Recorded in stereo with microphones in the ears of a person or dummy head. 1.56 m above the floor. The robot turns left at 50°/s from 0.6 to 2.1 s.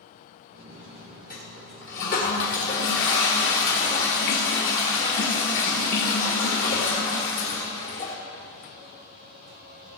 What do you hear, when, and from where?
1.3 s a toilet flushing: 110° left, 1.6 m; by 8.2 s 70° left, 1.6 m